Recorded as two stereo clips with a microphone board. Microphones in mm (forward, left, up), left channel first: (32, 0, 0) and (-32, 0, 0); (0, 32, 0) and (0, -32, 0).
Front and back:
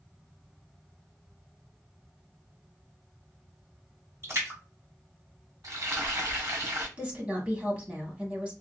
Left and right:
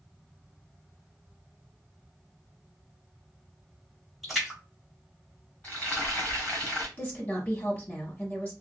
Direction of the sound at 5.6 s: 160° left.